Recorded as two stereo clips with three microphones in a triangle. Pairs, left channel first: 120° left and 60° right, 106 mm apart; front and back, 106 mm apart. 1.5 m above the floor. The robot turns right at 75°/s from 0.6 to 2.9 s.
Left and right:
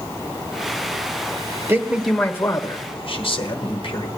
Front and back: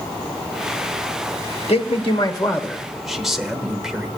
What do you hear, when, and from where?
1.7 s a man speaking: straight ahead, 1.1 m; by 4.1 s 95° left, 1.1 m